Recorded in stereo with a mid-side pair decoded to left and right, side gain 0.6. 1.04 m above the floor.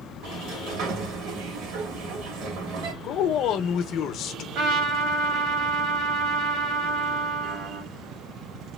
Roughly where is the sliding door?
Right.